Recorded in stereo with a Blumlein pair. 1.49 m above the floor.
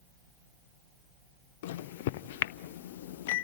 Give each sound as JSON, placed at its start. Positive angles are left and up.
{"t": 1.6, "sound": "a microwave", "azimuth_deg": 50, "distance_m": 0.5}